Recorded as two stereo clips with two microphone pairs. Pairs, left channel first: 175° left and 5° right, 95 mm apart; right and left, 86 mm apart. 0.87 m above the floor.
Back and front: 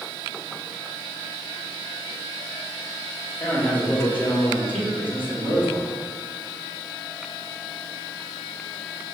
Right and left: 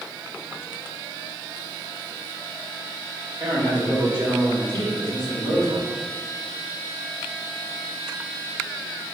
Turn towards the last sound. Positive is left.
turn(degrees=105)